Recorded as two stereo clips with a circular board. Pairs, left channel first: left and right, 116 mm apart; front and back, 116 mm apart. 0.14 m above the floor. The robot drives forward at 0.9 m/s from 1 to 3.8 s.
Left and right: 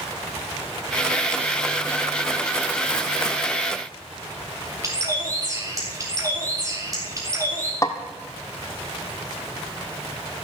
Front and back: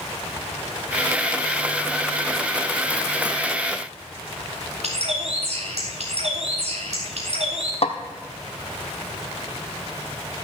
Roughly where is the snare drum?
Ahead left.